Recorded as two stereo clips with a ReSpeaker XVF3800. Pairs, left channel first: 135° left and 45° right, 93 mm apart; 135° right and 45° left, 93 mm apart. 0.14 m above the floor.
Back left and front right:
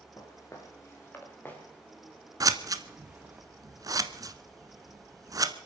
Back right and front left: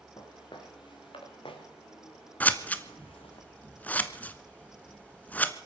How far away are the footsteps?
About 4.5 m.